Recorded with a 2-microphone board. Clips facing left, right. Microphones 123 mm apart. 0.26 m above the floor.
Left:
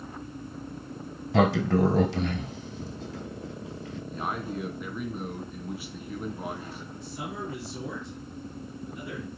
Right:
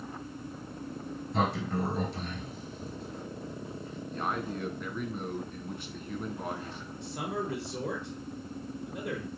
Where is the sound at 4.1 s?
5° left (ahead or behind), 2.5 m.